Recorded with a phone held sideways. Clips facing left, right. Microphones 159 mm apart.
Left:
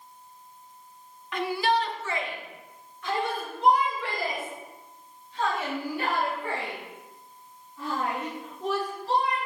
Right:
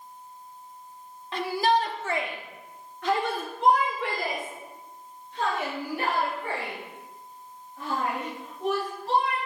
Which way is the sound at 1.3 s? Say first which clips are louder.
Right 1 dB; 30° right (ahead or behind).